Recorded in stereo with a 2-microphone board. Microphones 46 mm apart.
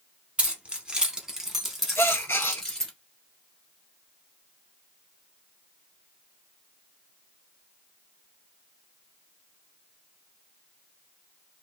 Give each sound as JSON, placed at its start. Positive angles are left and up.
{"t": 0.4, "sound": "keys jangling", "side_deg": -30, "distance_m": 1.0}
{"t": 2.0, "sound": "a gasp", "side_deg": 70, "distance_m": 0.5}